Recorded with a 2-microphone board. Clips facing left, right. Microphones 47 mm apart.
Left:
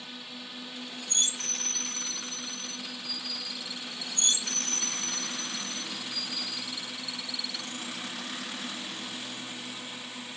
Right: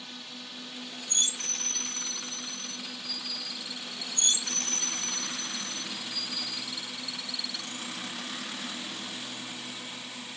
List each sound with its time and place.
0.0 s a drone: 10° left (ahead or behind)